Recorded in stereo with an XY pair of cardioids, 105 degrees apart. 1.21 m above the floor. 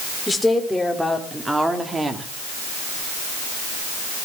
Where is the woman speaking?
15° left, 4.5 m; by 2.3 s 30° right, 3 m.